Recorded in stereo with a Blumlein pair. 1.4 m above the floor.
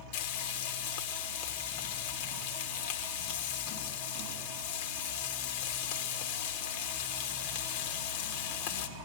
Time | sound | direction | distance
0.1 | frying | 50° left | 1.7 m